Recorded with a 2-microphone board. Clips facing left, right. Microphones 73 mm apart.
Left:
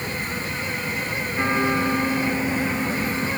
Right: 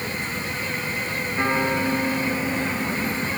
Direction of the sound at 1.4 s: 10° right (ahead or behind).